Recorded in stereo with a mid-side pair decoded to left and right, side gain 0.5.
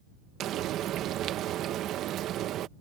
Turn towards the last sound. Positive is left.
turn(degrees=-65)